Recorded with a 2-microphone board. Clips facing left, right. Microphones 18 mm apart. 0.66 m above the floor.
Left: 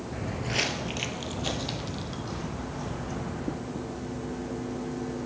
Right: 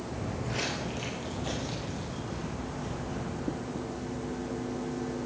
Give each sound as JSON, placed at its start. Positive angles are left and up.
{"t": 0.1, "sound": "footsteps", "side_deg": 35, "distance_m": 0.7}